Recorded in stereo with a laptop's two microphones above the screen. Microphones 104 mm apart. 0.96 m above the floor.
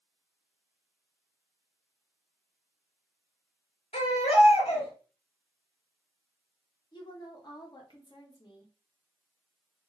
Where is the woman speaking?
45° left (ahead or behind), 1.1 m.